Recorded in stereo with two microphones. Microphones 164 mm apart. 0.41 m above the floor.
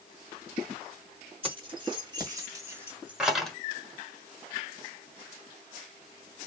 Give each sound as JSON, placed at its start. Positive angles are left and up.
{"t": 1.4, "sound": "keys jangling", "side_deg": -35, "distance_m": 2.0}